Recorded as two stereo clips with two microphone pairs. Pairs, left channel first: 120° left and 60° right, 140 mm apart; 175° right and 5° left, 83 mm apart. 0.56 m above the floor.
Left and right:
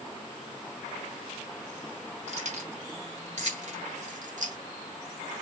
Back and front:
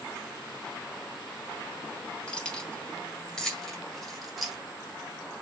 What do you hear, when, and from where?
2.3 s keys jangling: 95° right, 2.5 m; by 4.6 s 80° right, 1.1 m